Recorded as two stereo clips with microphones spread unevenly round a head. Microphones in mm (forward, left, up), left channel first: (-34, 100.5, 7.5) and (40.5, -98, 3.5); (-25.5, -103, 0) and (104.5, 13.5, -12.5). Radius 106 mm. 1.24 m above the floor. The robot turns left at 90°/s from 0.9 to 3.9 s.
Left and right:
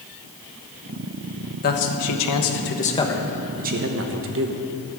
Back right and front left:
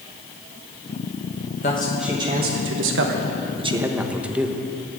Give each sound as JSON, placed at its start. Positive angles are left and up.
{"t": 1.6, "sound": "a man speaking", "azimuth_deg": 165, "distance_m": 1.3}